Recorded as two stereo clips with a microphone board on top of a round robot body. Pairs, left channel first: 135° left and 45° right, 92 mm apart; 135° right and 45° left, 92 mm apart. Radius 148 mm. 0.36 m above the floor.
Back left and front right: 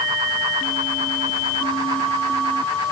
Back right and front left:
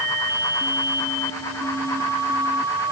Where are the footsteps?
No footsteps in this recording.